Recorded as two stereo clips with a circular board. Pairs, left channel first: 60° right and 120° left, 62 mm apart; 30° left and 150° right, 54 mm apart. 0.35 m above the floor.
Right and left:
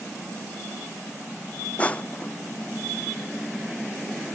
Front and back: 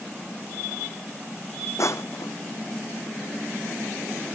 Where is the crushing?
10° left.